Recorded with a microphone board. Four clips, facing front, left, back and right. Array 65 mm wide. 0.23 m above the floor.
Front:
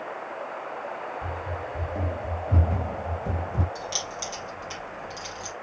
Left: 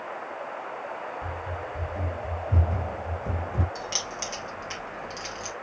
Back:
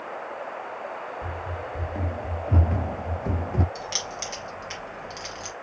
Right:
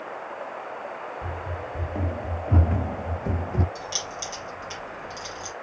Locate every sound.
1.2 s running footsteps: 105° right, 1.6 m; by 3.6 s 165° right, 0.6 m
3.8 s keys jangling: 150° left, 2.5 m